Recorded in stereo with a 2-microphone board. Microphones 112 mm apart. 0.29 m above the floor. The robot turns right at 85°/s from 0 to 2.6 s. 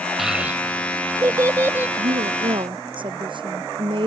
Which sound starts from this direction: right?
A woman speaking, at 2.0 s.